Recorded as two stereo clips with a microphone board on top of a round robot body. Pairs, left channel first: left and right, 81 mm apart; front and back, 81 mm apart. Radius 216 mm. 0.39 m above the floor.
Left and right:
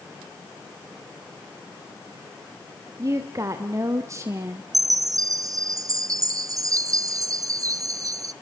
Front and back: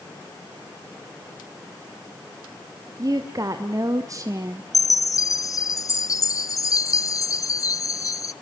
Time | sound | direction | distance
3.0 | a woman speaking | 135° right | 2.5 m
4.7 | a chime | 45° right | 0.8 m